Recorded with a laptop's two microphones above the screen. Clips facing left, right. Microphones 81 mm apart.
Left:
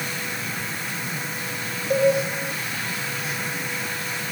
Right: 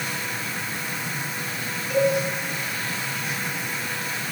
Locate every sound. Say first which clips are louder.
1.9 s a cowbell: left 2 dB; 50° left (ahead or behind), 7.5 m